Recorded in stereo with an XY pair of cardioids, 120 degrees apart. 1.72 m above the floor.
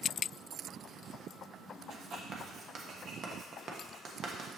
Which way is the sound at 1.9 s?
45° right.